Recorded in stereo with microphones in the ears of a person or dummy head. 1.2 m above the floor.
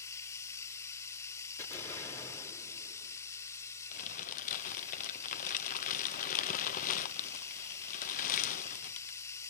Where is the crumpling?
45° left (ahead or behind), 0.6 m.